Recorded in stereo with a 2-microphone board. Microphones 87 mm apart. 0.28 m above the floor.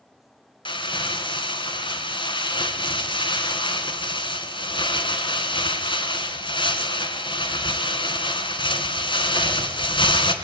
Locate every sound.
0.7 s crumpling: 70° left (ahead or behind), 3 m